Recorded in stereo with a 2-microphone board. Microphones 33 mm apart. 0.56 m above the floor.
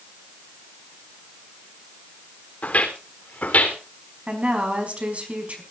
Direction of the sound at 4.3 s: 40° right (ahead or behind).